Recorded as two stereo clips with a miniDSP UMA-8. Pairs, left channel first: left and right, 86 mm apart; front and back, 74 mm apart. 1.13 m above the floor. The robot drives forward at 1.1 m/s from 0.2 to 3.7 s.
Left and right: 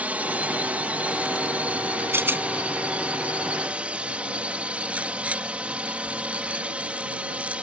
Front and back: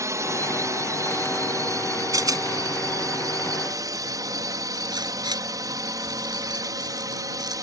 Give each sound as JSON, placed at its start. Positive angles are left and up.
{"t": 0.0, "sound": "a drone", "azimuth_deg": -155}
{"t": 2.1, "sound": "a rattle", "azimuth_deg": -150}